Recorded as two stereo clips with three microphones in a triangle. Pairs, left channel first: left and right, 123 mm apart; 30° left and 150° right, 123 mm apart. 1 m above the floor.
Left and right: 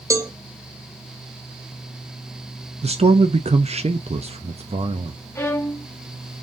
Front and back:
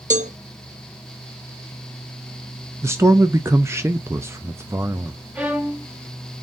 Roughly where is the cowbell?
Behind right.